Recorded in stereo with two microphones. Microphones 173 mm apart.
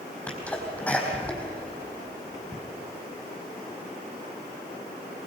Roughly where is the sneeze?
Centre.